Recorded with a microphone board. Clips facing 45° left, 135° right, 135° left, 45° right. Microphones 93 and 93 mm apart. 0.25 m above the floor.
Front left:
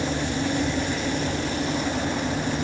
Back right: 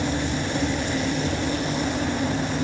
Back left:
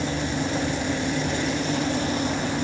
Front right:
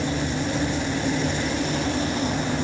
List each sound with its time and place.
Only background noise.